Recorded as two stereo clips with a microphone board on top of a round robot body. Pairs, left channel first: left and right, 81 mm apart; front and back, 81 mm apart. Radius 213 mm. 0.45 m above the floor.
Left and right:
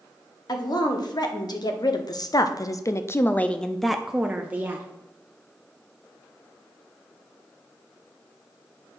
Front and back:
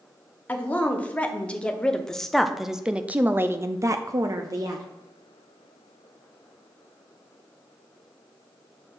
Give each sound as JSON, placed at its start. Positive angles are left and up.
{"t": 0.5, "sound": "a woman speaking", "azimuth_deg": 70, "distance_m": 1.9}